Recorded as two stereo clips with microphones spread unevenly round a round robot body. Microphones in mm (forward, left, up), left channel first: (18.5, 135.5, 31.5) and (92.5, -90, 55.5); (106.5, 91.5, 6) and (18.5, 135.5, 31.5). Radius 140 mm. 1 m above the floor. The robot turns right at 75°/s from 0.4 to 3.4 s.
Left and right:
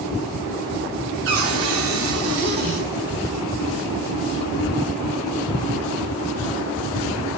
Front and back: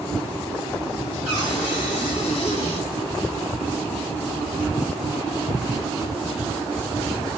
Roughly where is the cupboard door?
Behind right.